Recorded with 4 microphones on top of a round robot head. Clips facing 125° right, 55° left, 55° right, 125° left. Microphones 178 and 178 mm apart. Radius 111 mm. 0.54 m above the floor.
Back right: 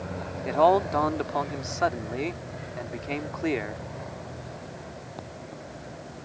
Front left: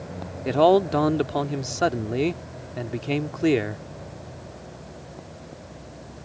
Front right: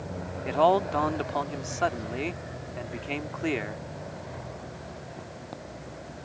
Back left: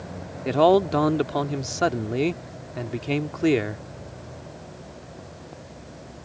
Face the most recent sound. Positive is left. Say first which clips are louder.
# front left 4 dB, back left 5 dB
turn(degrees=100)